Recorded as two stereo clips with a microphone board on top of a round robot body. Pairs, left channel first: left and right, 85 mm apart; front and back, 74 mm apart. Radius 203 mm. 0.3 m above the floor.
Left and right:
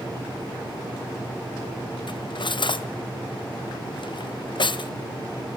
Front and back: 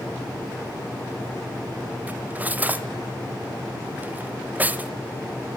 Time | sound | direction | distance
2.1 | cutlery clinking | 110° left | 1.3 m